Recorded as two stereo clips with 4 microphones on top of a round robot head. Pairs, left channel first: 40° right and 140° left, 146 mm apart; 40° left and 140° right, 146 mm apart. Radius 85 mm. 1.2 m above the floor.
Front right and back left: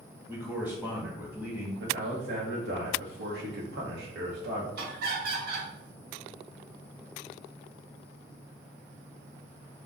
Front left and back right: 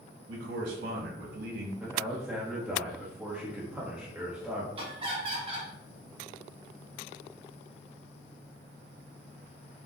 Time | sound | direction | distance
0.3 | a man speaking | 140° right | 1.5 m
1.8 | a man speaking | 135° left | 0.9 m
4.8 | laughter | 165° left | 1.7 m